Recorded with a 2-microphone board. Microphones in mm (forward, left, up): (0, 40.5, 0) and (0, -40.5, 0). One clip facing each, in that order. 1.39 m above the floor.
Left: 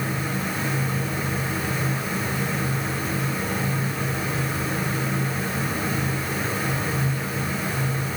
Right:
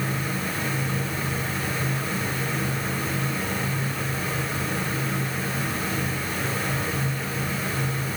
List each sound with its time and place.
Only background noise.